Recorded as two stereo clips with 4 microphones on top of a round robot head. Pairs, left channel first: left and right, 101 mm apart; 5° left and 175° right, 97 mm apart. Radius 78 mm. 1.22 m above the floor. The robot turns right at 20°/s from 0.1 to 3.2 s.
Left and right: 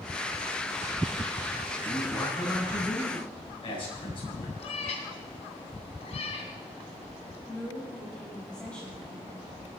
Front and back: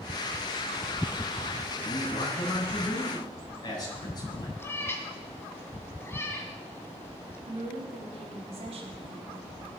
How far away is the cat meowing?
About 2.5 m.